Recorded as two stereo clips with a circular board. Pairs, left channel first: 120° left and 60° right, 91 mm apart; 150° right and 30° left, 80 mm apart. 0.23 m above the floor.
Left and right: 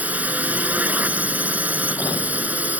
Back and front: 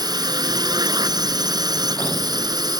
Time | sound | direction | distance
0.0 | a drone | 10° left | ?